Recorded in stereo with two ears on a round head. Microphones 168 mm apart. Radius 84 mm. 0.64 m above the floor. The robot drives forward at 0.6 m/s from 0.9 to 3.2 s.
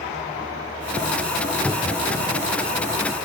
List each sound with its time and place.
1.6 s a cupboard door: 5° left (ahead or behind); by 2.0 s 10° left (ahead or behind)